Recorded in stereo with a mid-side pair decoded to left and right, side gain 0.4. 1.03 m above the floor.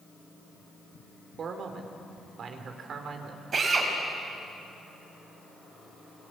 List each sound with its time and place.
1.4 s a man speaking: 60° right, 3.5 m
3.5 s a drill: 50° right, 6 m